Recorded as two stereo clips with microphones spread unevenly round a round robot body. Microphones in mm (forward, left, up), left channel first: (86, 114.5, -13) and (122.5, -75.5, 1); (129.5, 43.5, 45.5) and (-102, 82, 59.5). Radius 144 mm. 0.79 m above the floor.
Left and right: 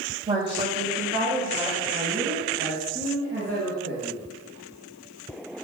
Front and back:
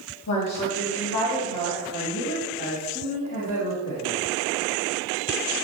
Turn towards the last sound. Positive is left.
turn(degrees=-55)